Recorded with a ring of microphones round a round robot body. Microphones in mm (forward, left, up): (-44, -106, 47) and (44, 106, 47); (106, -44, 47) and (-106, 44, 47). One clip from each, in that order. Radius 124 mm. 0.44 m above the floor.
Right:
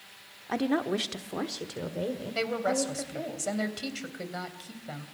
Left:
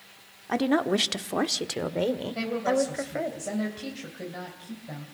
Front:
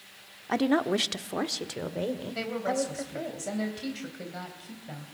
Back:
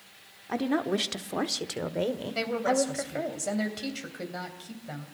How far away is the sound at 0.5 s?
About 1.0 m.